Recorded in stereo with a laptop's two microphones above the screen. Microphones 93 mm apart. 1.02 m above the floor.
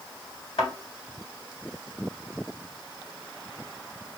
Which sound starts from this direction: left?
A thud, at 0.6 s.